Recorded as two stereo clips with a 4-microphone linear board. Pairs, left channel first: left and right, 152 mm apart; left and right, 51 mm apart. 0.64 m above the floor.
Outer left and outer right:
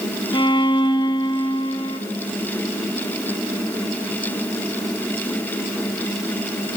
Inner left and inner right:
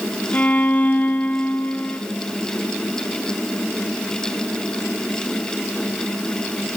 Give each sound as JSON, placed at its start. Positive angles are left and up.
{"t": 0.3, "sound": "a violin", "side_deg": 30, "distance_m": 0.8}